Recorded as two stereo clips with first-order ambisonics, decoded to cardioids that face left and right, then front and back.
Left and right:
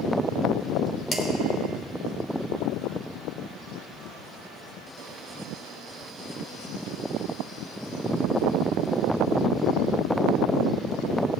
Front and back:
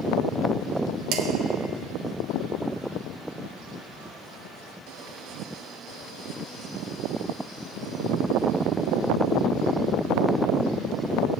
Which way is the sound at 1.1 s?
155° left.